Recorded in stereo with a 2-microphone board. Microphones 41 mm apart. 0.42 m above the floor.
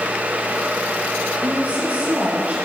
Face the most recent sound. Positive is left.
turn(degrees=-40)  # may be behind; listen again after turning